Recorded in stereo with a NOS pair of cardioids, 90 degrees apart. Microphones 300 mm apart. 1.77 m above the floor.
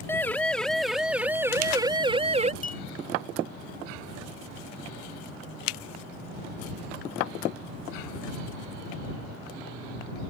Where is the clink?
25° left.